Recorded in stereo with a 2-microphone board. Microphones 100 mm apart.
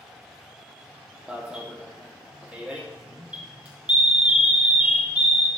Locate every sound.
1.3 s an alarm: 10° right (ahead or behind), 2.0 m